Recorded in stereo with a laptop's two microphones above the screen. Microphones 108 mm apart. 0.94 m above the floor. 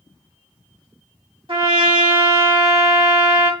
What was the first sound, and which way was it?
A trumpet, 55° right (ahead or behind).